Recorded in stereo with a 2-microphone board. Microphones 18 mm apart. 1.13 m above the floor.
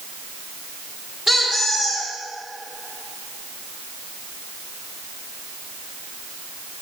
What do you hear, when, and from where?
1.3 s a squeak: 5° right (ahead or behind), 1.5 m